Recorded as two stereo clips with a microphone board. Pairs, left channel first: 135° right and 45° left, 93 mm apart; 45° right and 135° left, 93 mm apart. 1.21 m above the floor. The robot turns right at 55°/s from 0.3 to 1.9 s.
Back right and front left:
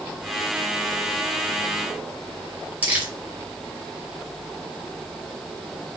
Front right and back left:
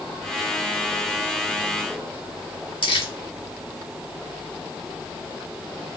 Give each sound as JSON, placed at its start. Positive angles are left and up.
{"t": 2.8, "sound": "crumpling", "azimuth_deg": -30, "distance_m": 2.5}